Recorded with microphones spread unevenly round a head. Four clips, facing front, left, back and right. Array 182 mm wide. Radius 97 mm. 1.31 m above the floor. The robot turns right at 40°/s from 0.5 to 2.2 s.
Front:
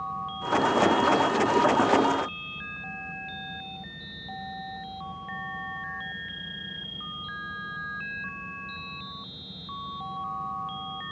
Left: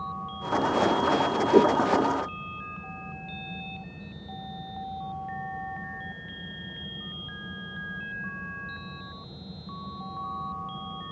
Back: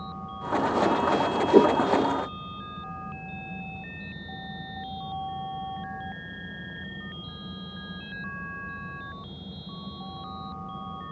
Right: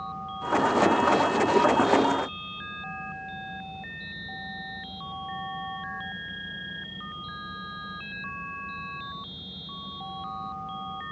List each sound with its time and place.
1.5 s a whoosh: 150° left; by 1.8 s 160° left